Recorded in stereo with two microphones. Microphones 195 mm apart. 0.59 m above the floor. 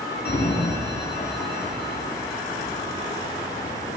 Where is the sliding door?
55° left (ahead or behind), 1.2 m.